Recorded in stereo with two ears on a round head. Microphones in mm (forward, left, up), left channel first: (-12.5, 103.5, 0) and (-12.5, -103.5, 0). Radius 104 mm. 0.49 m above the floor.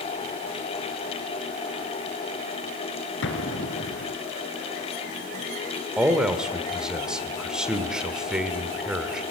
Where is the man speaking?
5° right (ahead or behind), 1.6 m.